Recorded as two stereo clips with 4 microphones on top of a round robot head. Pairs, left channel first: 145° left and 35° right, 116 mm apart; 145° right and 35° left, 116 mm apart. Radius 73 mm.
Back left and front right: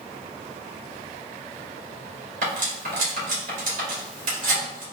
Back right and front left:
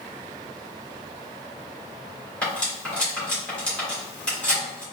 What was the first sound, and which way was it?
Cutlery clinking, 60° right.